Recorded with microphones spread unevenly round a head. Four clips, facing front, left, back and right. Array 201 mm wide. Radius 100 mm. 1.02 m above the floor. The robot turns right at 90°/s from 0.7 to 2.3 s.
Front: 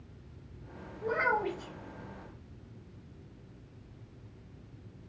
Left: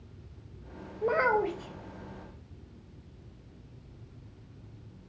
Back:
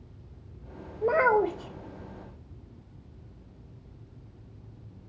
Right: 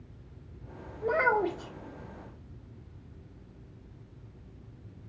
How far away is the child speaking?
About 0.9 m.